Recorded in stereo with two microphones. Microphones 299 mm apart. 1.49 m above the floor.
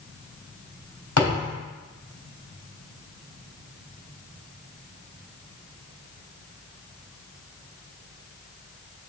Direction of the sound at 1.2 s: 75° left (ahead or behind).